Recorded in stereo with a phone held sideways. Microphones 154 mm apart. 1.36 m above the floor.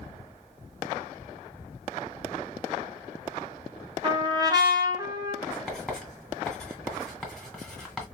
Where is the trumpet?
25° right (ahead or behind), 1.0 m.